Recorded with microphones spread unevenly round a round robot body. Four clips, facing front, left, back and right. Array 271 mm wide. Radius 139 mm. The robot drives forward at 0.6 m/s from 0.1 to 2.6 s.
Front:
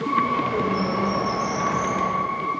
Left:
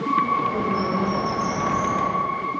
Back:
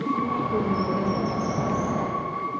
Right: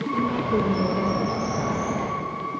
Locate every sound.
0.1 s a bird: 75° right, 0.7 m; by 2.1 s 155° right, 1.2 m